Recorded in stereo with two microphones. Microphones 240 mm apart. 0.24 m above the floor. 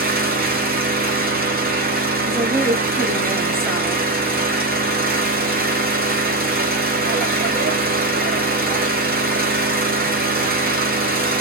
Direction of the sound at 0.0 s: 40° right (ahead or behind).